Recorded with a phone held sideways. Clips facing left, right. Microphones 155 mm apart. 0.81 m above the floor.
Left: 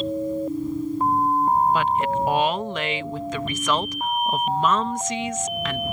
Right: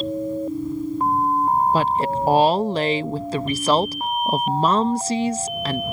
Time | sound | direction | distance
1.7 | a woman speaking | 35° right (ahead or behind) | ?